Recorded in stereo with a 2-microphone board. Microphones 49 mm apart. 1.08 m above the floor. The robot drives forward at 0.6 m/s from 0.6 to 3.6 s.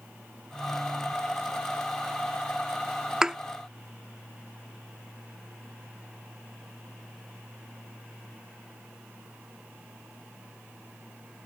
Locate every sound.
3.2 s a thud: 10° right (ahead or behind); by 3.4 s 15° right (ahead or behind)